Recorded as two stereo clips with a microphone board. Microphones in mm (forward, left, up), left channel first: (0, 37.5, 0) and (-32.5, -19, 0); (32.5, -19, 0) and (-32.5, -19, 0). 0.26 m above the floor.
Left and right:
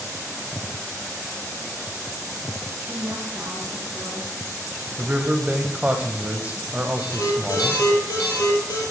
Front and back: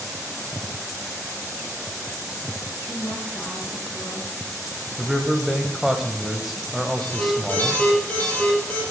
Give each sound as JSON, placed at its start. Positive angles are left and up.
{"t": 2.9, "sound": "a woman speaking", "azimuth_deg": -60, "distance_m": 2.5}
{"t": 5.0, "sound": "a man speaking", "azimuth_deg": -100, "distance_m": 0.9}
{"t": 7.0, "sound": "an alarm", "azimuth_deg": 65, "distance_m": 5.0}